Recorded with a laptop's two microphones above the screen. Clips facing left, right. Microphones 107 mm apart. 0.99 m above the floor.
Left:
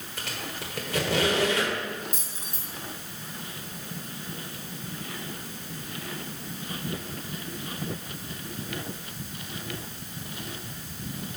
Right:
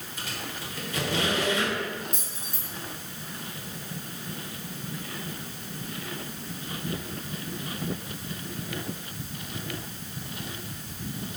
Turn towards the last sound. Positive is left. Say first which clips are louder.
# right 1 dB
turn(degrees=0)  # may be behind; listen again after turning